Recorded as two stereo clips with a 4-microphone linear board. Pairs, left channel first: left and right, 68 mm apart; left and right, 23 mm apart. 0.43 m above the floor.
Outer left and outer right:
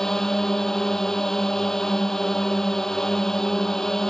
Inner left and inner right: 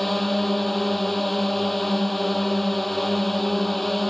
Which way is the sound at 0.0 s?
5° left (ahead or behind).